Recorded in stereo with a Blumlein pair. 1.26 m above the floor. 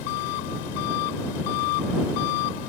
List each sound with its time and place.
0.0 s an engine running: 45° left